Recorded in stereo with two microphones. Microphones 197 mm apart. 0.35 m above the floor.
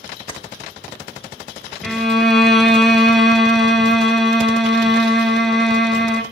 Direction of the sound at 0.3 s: 25° left (ahead or behind).